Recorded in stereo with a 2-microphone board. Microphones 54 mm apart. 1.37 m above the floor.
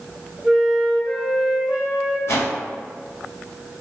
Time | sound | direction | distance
0.4 | a flute | 10° right (ahead or behind) | 1.1 m
2.3 | a whoosh | 55° left (ahead or behind) | 0.9 m